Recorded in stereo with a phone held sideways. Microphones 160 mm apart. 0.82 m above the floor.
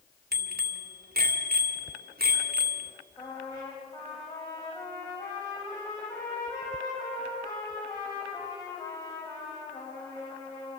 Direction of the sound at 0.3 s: 80° right.